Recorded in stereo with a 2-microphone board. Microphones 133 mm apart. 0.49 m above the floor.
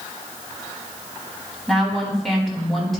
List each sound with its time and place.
1.7 s a woman speaking: centre (ahead or behind), 4 m